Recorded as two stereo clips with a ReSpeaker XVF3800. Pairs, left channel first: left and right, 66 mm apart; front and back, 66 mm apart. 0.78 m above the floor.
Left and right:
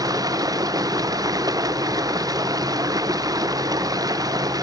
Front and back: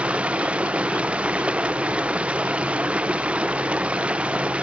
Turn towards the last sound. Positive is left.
turn(degrees=-105)